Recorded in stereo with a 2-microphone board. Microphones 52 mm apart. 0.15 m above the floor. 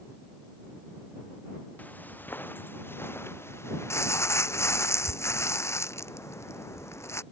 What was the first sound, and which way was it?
Footsteps, 35° left (ahead or behind).